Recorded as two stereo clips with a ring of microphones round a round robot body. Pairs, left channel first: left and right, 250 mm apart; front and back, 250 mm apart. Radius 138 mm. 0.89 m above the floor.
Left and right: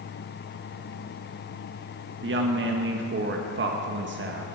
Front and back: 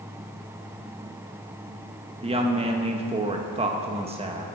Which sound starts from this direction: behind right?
A woman speaking, at 2.2 s.